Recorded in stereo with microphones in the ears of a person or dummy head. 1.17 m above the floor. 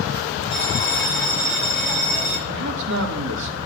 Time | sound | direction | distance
0.5 | a bell | 15° left (ahead or behind) | 4.5 m
2.5 | a man speaking | 60° right (ahead or behind) | 2.5 m